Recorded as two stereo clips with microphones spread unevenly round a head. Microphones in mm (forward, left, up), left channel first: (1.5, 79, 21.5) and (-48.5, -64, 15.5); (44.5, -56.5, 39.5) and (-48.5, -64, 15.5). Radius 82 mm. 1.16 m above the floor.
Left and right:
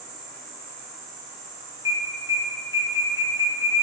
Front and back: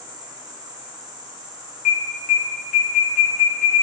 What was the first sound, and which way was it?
An insect, 130° right.